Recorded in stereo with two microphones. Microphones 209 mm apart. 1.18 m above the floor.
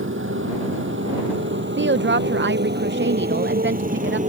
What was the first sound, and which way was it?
A motorcycle, 75° right (ahead or behind).